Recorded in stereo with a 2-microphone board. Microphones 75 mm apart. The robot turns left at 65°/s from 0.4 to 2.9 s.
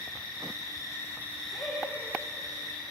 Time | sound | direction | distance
0.0 | an insect | 75° left | 3.5 m
1.5 | laughter | 45° left | 4.5 m